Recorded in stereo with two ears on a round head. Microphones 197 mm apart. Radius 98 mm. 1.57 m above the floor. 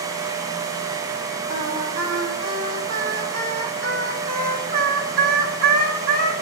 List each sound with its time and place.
1.5 s singing: 45° right (ahead or behind), 3.5 m